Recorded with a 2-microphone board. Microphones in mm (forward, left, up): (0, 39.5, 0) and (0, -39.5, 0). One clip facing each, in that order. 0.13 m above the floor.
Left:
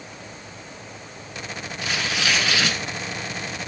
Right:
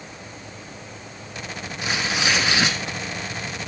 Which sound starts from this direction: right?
Tearing paper, at 1.8 s.